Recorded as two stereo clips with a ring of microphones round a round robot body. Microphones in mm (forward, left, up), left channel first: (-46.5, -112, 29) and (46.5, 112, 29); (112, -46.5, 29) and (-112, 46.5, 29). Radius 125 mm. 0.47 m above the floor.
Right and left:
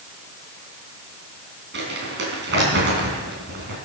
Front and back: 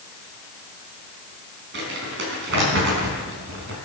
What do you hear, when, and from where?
1.7 s crumpling: 115° left, 4 m